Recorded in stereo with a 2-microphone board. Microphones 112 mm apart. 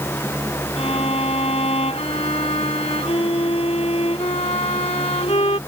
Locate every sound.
0.8 s a violin: 70° left (ahead or behind)